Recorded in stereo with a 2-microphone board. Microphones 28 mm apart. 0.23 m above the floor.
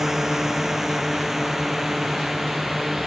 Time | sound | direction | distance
0.0 | a drone | 15° right (ahead or behind) | ?